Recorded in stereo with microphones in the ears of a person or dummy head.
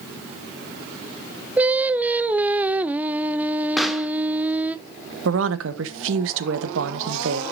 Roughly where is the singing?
Centre.